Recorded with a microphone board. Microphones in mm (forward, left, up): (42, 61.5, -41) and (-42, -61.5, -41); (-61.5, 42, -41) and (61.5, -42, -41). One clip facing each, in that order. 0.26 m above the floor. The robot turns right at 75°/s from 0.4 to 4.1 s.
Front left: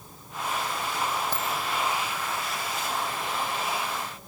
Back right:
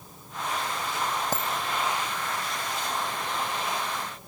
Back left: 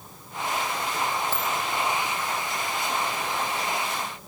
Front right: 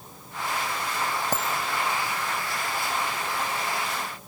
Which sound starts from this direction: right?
A dropped coin, at 1.3 s.